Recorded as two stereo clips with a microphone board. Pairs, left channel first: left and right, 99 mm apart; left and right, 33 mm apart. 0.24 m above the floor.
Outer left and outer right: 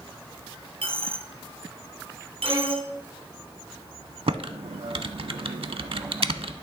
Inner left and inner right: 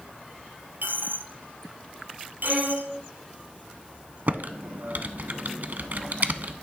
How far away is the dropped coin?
About 0.9 m.